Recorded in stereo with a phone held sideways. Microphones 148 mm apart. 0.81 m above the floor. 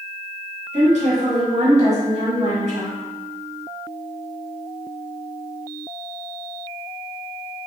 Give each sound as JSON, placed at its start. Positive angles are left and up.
{"t": 0.7, "sound": "a woman speaking", "side_deg": -55, "distance_m": 1.2}